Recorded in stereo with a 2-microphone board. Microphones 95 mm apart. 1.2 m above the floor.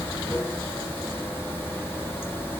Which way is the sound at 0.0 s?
25° left (ahead or behind).